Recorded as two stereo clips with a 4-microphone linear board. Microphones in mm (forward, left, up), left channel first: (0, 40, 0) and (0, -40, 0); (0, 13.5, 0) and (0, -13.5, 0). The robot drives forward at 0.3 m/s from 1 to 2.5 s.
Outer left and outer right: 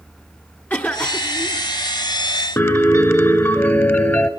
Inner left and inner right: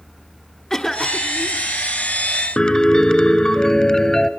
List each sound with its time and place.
0.7 s a cough: 25° left (ahead or behind), 1.4 m
2.6 s a piano: 30° left (ahead or behind), 1.0 m